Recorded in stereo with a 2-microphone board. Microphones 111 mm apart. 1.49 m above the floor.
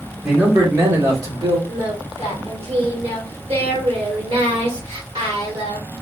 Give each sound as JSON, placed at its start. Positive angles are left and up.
{"t": 0.2, "sound": "a man speaking", "side_deg": -5, "distance_m": 1.2}
{"t": 1.7, "sound": "singing", "side_deg": -55, "distance_m": 1.4}